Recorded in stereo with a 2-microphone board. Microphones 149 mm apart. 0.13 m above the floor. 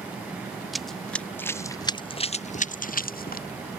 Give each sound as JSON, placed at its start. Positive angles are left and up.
{"t": 0.7, "sound": "running footsteps", "side_deg": 0}